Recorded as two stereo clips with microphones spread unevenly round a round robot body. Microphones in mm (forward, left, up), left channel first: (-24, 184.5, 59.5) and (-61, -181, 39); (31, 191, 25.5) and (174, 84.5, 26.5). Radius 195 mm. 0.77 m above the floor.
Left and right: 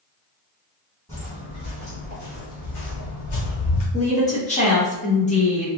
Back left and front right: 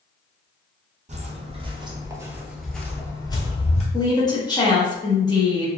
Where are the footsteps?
5° left, 1.3 m; by 3.8 s 100° left, 1.1 m.